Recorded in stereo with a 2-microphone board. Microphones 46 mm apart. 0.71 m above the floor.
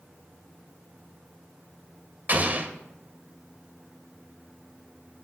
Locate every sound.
2.3 s an explosion: 35° right (ahead or behind), 2.5 m